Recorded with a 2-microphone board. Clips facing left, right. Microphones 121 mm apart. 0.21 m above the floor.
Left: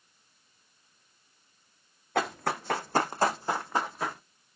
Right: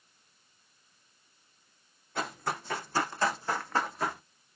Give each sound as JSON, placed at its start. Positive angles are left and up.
{"t": 2.1, "sound": "running footsteps", "side_deg": 80, "distance_m": 1.0}